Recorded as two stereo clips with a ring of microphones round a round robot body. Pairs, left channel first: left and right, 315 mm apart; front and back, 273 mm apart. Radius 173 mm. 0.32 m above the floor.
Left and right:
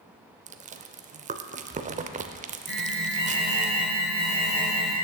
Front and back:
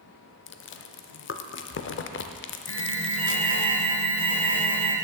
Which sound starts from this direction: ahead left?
An alarm, at 2.7 s.